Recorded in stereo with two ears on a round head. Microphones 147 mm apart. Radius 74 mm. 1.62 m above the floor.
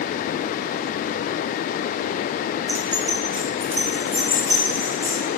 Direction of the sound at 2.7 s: 15° right (ahead or behind).